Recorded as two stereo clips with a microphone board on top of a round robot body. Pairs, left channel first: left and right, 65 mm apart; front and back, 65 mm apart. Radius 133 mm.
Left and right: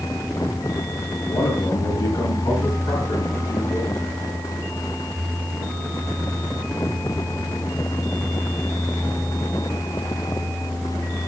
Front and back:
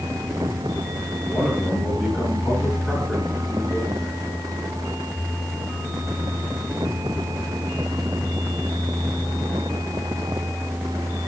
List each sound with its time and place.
1.2 s a man speaking: 90° left, 9.5 m